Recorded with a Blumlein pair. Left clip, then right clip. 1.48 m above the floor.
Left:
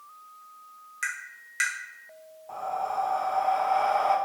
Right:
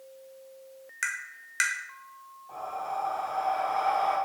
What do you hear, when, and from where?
1.0 s tapping: 15° right, 0.7 m
2.5 s breathing: 65° left, 0.6 m